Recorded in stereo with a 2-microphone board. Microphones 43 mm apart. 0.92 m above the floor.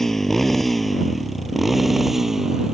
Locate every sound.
0.0 s a motorcycle: 5° left (ahead or behind); by 2.7 s 10° right (ahead or behind)